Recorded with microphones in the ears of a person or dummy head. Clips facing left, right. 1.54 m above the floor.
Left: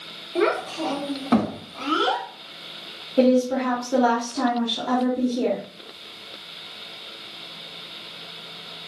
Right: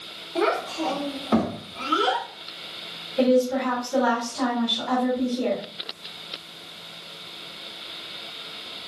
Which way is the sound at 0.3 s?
25° left (ahead or behind).